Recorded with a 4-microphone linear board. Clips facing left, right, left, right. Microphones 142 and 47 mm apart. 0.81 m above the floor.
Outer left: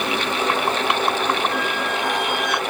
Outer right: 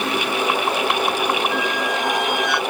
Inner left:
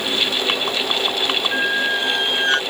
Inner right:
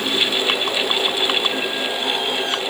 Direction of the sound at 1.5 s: 45° left (ahead or behind).